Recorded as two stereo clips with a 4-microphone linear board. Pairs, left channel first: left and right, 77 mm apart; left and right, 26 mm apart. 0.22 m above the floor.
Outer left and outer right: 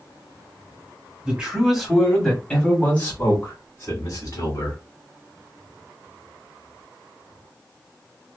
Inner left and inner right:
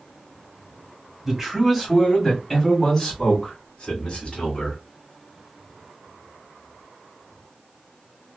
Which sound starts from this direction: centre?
A man speaking, at 1.2 s.